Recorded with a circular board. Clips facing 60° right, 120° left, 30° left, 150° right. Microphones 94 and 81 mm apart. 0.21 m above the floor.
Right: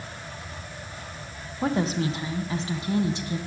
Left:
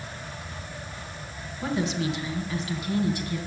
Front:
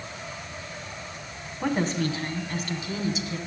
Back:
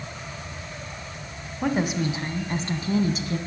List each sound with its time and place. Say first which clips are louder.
1.6 s a woman speaking: right 2 dB, back 1 dB; 65° right, 1.5 m; by 3.4 s 125° right, 1.8 m